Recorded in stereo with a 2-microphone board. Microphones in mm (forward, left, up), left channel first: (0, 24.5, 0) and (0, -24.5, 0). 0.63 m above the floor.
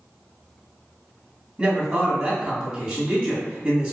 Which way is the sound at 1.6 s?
30° right (ahead or behind).